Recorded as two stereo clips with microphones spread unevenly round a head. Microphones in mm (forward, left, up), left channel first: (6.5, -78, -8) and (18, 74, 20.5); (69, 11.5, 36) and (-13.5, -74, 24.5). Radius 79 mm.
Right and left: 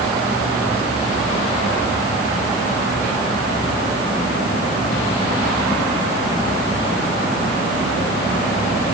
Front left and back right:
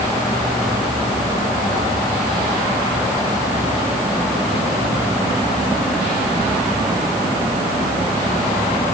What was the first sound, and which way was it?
Only background noise.